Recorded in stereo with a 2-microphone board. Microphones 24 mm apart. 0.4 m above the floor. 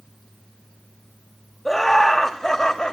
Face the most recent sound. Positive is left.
turn(degrees=25)  # may be behind; listen again after turning